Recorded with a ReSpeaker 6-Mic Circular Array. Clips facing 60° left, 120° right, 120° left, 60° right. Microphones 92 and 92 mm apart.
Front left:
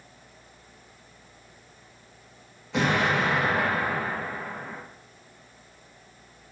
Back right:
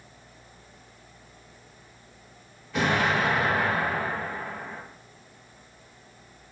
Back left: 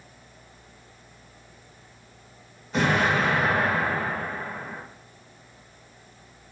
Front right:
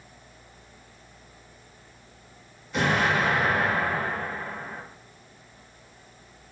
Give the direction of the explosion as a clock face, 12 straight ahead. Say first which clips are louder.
Even, back left 1 dB; 10 o'clock.